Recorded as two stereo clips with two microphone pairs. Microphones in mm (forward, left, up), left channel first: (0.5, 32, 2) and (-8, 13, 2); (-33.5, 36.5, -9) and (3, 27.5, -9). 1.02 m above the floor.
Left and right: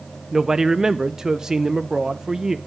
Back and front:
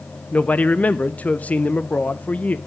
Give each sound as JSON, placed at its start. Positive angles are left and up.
{"t": 0.3, "sound": "a man speaking", "azimuth_deg": -170, "distance_m": 0.5}